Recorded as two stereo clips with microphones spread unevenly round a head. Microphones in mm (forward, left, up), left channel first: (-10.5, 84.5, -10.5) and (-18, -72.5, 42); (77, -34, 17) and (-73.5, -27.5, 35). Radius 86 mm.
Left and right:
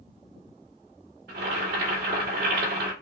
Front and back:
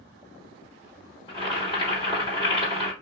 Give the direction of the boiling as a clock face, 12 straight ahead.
2 o'clock.